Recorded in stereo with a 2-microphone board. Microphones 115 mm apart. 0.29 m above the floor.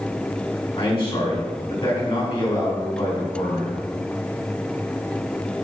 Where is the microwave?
I don't hear a microwave.